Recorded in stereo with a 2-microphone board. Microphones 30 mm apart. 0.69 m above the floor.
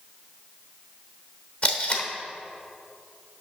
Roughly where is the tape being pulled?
Left.